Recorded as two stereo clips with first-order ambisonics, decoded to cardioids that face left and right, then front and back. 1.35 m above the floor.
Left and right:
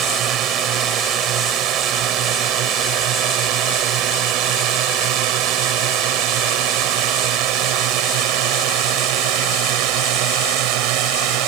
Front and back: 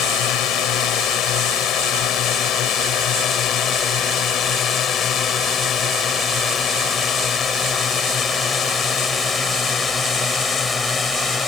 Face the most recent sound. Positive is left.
turn(degrees=-75)